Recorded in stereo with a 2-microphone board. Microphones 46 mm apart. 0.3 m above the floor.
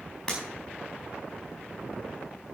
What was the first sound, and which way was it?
Breaking glass, 10° left (ahead or behind).